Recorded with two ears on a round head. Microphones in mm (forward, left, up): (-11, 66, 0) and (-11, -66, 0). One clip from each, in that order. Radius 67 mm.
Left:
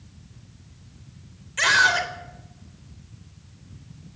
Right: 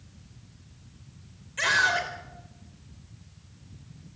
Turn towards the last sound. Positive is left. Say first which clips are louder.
# left 5 dB
turn(degrees=30)  # may be behind; listen again after turning